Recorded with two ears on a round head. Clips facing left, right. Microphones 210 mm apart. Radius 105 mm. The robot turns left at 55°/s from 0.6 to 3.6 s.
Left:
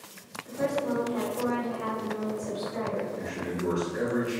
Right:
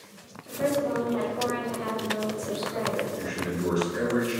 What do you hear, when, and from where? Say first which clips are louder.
0.5 s a woman speaking: right 2 dB; 75° left, 0.9 m; by 3.0 s 60° right, 0.9 m
3.1 s a man speaking: right 2 dB; 25° right (ahead or behind), 1.2 m; by 4.4 s 5° right (ahead or behind), 1.2 m